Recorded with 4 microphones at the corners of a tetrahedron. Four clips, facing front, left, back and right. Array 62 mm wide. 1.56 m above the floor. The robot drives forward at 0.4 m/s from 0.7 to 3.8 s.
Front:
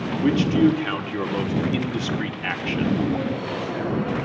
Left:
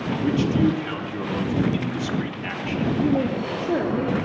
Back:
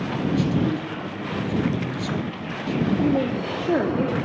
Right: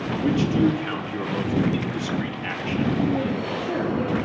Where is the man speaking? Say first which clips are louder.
Even, front 5 dB; 5° right, 3.5 m.